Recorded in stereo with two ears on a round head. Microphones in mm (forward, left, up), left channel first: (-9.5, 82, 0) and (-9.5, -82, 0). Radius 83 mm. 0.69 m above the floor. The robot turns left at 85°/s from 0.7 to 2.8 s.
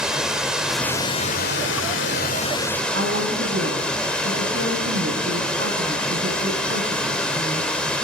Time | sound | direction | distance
0.0 | running water | 175° right | 2.5 m
2.9 | a woman speaking | 75° right (ahead or behind) | 6 m